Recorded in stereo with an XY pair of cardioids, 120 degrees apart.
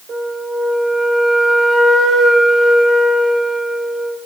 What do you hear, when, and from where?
0.1 s a flute: 45° right, 3.5 m